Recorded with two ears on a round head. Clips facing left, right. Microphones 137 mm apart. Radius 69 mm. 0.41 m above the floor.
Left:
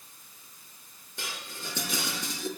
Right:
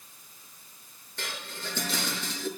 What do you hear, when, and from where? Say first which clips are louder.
1.2 s dishes clattering: right 2 dB; 10° left (ahead or behind), 5 m